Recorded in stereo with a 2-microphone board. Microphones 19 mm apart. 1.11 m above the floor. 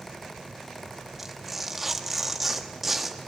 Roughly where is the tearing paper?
Centre.